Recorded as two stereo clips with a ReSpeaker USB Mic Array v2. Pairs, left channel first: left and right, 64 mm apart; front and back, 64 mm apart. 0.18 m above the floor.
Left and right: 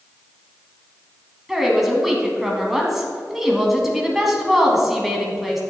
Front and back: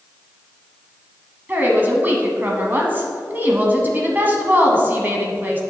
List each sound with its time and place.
1.5 s a woman speaking: 175° right, 1.4 m